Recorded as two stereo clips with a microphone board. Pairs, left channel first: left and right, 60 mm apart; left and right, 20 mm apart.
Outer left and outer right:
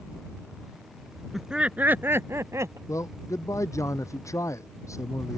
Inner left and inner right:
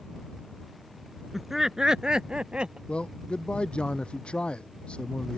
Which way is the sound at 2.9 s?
65° left (ahead or behind).